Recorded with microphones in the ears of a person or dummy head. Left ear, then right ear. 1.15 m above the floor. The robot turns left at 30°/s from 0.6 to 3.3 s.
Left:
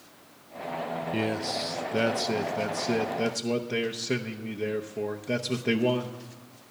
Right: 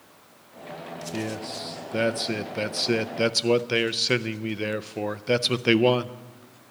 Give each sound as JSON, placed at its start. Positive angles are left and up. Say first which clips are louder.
{"t": 1.1, "sound": "a man speaking", "louder": "left 2 dB", "azimuth_deg": 20, "distance_m": 0.5}